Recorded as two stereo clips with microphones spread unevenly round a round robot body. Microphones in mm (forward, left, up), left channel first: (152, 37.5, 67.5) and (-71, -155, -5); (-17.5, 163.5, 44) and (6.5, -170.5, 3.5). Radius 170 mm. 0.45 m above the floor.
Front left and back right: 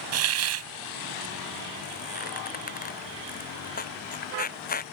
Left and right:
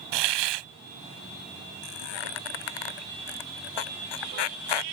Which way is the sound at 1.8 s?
105° left.